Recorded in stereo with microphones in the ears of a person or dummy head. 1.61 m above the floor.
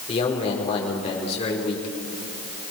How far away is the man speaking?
About 5 m.